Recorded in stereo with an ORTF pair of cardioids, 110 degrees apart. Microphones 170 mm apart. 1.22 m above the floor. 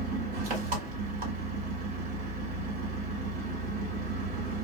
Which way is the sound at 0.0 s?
60° right.